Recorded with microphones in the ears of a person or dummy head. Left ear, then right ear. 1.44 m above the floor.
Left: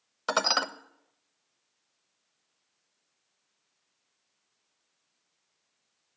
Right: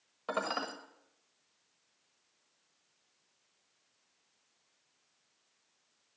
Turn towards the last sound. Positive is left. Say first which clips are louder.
# left 9 dB
turn(degrees=65)  # may be behind; listen again after turning